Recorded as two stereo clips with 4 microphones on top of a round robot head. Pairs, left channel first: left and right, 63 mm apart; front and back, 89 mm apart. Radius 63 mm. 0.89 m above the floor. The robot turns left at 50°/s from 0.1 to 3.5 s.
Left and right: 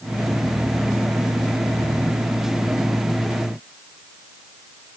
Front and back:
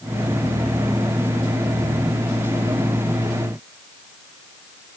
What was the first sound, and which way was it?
Only background noise.